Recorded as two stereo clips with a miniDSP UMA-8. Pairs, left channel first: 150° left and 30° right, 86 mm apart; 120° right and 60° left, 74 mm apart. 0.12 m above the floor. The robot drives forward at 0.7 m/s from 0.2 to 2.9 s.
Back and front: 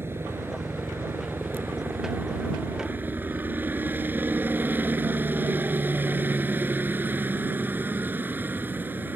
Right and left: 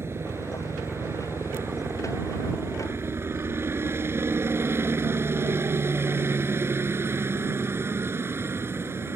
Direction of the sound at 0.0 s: 20° left.